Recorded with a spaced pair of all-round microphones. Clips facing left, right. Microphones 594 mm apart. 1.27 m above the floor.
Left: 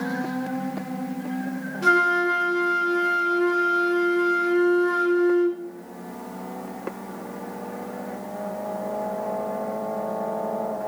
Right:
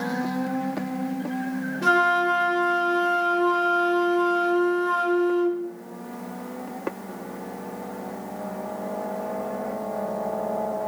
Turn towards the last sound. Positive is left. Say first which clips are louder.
# left 3 dB
turn(degrees=-25)  # may be behind; listen again after turning